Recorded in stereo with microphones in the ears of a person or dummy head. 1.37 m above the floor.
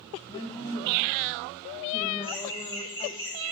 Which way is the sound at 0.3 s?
30° left (ahead or behind).